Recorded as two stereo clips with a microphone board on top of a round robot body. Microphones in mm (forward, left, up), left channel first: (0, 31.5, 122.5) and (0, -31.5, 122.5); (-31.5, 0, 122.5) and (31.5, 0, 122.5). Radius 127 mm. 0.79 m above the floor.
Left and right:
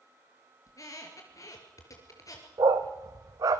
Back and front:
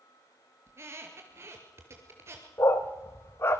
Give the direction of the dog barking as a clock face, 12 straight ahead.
4 o'clock.